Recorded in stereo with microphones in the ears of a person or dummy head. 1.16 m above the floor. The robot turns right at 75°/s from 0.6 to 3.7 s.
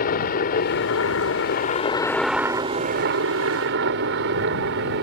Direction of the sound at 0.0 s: 60° left.